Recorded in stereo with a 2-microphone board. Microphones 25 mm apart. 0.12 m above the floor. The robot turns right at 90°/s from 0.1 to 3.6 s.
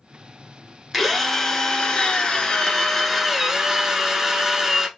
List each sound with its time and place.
0.9 s a drill: 5° right, 1.0 m; by 4.9 s 125° right, 1.0 m